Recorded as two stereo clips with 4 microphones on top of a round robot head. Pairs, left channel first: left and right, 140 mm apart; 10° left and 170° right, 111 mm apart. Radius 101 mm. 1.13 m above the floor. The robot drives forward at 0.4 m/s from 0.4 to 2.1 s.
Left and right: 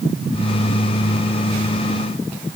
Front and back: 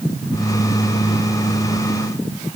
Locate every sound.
Only background noise.